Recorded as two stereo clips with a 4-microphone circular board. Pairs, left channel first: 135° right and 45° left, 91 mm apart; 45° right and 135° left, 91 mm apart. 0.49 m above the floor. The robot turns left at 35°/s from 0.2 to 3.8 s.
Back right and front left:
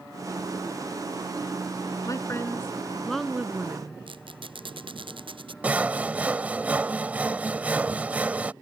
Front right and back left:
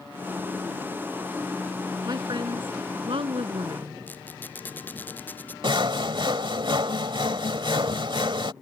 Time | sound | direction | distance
2.0 | a woman speaking | 175° left | ?
4.1 | a squeak | 25° left | ?
5.6 | sawing | 120° left | ?